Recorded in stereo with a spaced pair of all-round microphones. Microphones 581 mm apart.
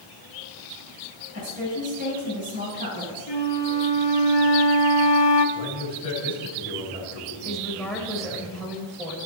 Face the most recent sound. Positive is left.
turn(degrees=0)  # may be behind; listen again after turning